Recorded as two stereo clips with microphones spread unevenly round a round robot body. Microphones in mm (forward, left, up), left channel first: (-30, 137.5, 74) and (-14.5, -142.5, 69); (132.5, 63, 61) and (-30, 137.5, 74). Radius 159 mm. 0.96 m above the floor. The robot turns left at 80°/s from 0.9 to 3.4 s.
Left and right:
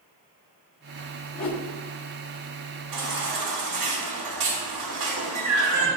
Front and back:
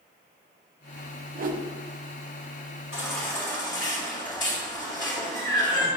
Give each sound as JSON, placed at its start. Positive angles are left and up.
{"t": 1.4, "sound": "a whoosh", "azimuth_deg": 125, "distance_m": 1.3}
{"t": 2.9, "sound": "a baby crying", "azimuth_deg": -70, "distance_m": 2.5}